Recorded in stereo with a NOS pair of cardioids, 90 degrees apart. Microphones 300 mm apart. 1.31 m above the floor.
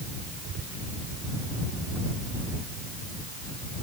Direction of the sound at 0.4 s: 45° right.